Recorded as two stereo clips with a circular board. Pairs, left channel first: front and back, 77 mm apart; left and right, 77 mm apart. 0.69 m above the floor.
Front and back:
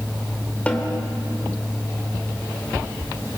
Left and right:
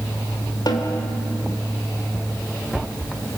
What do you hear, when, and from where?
0.7 s a snare drum: 70° left, 2.5 m